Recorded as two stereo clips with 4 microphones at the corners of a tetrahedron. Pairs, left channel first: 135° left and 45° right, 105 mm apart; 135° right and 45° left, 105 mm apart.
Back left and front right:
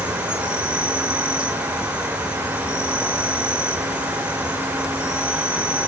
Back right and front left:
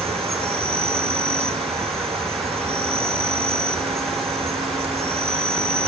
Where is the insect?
35° left, 1.1 m.